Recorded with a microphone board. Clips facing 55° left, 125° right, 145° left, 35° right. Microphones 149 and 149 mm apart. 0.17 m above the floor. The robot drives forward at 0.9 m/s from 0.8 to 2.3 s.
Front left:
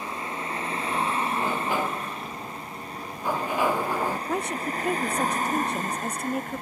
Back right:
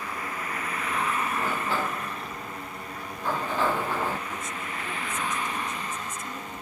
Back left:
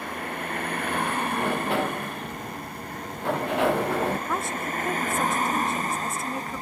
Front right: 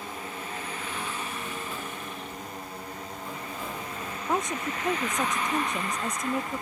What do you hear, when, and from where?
0.0 s a vehicle: 120° left; by 6.6 s 95° left
1.3 s a sliding door: 130° left; by 4.2 s 135° left
4.3 s a woman speaking: 40° left